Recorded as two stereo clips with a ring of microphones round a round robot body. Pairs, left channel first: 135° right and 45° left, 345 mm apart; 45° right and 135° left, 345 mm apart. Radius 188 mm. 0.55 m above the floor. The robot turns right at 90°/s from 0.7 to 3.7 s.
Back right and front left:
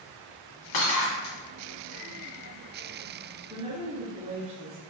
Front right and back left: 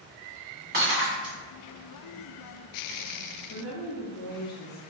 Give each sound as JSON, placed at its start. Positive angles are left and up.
{"t": 0.7, "sound": "breaking glass", "azimuth_deg": -160, "distance_m": 1.7}
{"t": 3.5, "sound": "a woman speaking", "azimuth_deg": -35, "distance_m": 0.8}